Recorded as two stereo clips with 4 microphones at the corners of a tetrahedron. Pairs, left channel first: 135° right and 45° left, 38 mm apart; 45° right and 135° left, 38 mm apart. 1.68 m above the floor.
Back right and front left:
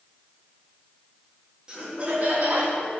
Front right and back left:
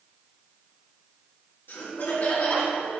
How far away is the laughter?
About 3 m.